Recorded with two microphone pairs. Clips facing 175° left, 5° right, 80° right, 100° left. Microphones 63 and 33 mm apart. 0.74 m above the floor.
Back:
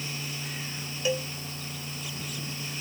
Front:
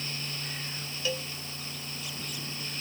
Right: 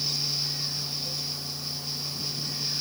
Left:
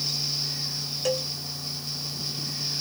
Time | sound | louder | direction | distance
1.1 | a cowbell | back 5 dB, left 8 dB | 105° left | ?